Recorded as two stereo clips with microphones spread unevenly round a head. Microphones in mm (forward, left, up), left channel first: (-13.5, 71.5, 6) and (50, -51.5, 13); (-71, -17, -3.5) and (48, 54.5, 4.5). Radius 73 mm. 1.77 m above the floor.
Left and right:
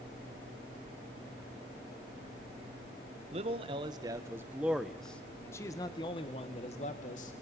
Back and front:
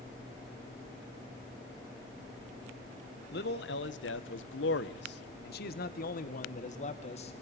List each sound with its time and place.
3.3 s a man speaking: 115° right, 1.9 m; by 7.3 s 160° left, 2.5 m